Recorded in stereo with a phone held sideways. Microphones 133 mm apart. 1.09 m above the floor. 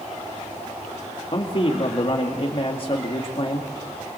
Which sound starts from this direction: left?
A man speaking, at 1.3 s.